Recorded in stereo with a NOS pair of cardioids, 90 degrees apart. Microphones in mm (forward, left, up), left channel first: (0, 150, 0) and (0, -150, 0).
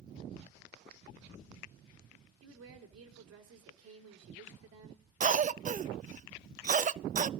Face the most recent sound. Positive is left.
turn(degrees=-25)